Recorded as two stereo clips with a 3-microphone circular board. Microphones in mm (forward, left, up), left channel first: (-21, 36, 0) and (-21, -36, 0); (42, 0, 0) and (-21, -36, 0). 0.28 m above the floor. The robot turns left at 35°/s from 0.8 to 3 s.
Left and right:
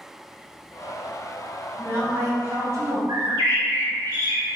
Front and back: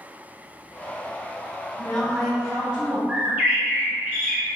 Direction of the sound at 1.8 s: 40° right.